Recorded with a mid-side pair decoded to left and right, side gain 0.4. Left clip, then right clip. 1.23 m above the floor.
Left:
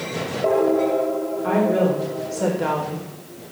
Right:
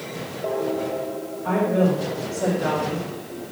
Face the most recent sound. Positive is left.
turn(degrees=30)